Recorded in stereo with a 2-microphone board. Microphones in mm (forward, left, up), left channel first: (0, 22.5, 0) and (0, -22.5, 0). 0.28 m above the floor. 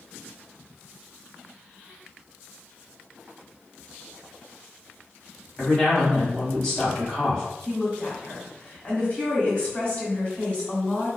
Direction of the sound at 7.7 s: 30° left (ahead or behind).